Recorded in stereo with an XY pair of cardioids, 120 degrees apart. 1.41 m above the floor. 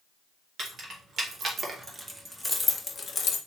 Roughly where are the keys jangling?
Ahead right.